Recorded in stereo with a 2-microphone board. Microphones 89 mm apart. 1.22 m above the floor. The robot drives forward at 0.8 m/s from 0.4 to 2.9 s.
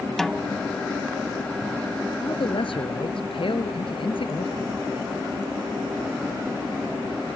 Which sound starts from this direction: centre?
A snare drum, at 0.2 s.